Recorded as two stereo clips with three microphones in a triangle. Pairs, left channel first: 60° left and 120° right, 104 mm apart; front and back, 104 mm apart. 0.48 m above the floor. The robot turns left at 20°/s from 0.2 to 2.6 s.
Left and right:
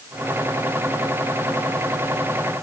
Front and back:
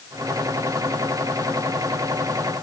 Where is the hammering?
I don't hear hammering.